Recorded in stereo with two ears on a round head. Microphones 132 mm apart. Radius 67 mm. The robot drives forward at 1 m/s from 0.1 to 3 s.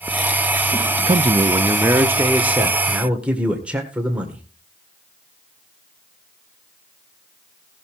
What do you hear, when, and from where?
1.1 s a man speaking: 30° right (ahead or behind), 0.6 m; by 4.4 s 10° right (ahead or behind), 2 m